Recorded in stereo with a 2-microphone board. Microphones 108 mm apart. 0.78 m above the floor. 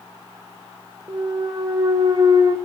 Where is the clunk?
35° right (ahead or behind), 0.6 m.